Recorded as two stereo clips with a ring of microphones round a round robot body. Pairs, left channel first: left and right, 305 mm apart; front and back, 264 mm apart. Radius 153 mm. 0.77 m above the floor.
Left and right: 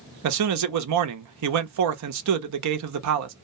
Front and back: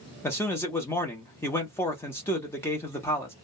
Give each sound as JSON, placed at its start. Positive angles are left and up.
{"t": 0.2, "sound": "a man speaking", "azimuth_deg": -80, "distance_m": 0.7}